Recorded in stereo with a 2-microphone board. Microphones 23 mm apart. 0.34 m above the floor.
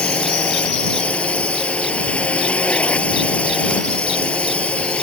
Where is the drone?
80° left.